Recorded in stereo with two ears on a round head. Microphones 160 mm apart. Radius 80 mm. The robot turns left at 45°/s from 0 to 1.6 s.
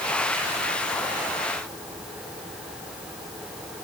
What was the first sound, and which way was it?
Only background noise.